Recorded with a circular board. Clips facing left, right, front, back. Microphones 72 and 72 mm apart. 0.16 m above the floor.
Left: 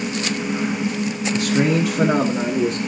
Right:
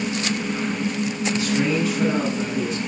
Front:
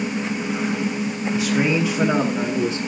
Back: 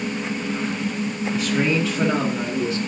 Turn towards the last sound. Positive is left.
turn(degrees=65)